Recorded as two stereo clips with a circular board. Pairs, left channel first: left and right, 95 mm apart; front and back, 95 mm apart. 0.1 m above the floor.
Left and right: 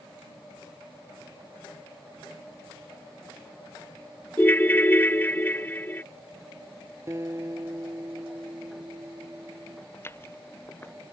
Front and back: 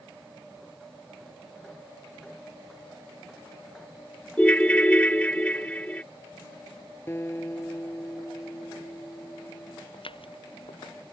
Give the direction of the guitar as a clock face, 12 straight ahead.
2 o'clock.